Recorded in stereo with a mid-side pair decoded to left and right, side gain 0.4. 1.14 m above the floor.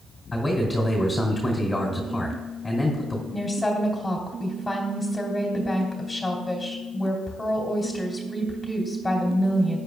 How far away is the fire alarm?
I don't hear a fire alarm.